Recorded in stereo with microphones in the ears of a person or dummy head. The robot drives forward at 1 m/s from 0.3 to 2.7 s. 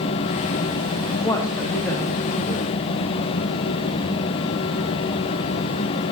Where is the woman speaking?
20° left (ahead or behind), 1.0 m; by 2.7 s 5° left (ahead or behind), 2.5 m.